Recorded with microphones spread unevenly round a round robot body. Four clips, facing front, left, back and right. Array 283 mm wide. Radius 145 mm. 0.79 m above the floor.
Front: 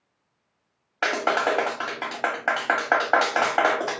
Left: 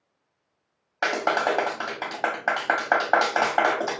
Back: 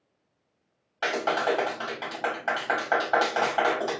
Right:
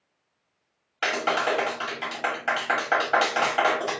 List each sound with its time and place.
1.0 s a clap: 35° left, 1.2 m